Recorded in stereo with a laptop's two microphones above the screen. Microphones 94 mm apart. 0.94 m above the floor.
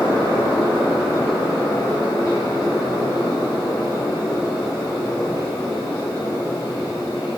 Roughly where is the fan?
Left.